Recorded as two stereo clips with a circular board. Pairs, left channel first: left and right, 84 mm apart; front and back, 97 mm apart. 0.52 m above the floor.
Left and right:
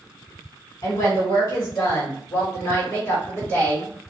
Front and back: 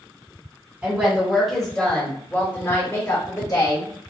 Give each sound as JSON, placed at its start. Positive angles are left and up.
{"t": 0.8, "sound": "a woman speaking", "azimuth_deg": 110, "distance_m": 1.8}